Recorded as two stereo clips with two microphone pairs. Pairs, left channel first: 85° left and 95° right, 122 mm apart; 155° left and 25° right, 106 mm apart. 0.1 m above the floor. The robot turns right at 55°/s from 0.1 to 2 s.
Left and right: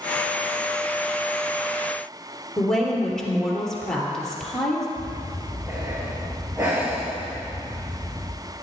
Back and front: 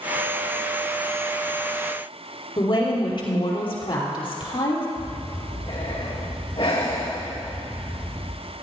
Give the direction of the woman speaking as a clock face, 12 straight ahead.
6 o'clock.